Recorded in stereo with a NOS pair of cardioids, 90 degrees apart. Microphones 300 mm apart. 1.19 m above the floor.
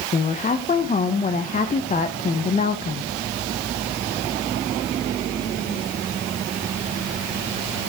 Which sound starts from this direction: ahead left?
A woman speaking, at 0.1 s.